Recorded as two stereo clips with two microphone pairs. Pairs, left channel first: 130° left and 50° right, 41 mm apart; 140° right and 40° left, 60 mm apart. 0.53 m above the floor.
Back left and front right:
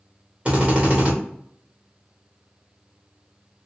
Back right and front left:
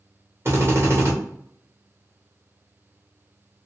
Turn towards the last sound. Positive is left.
turn(degrees=-5)